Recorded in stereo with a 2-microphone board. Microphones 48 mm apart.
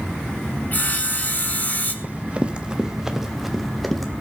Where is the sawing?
40° left (ahead or behind), 1.7 m.